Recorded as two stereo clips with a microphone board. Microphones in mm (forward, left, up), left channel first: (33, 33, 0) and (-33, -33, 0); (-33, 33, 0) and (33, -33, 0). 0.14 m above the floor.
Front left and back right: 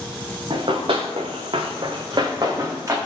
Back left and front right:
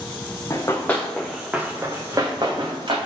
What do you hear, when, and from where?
0.5 s running footsteps: 165° right, 0.8 m; by 3.0 s 80° right, 1.2 m